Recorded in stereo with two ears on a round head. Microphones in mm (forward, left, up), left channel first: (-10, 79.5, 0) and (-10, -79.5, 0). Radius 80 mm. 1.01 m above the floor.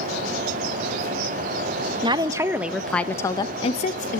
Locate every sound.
2.0 s a woman speaking: 25° right (ahead or behind), 1.0 m; by 4.2 s 45° left (ahead or behind), 1.0 m